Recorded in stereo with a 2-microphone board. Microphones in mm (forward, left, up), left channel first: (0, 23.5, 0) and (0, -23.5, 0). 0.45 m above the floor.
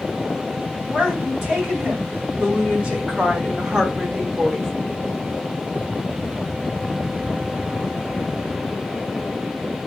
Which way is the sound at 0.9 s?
20° right (ahead or behind).